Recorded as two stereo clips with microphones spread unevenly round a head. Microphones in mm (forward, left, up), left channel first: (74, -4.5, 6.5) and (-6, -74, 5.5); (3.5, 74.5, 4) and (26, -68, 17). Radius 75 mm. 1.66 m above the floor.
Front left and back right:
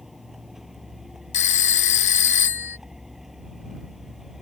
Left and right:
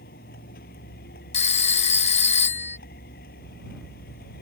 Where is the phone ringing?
50° left.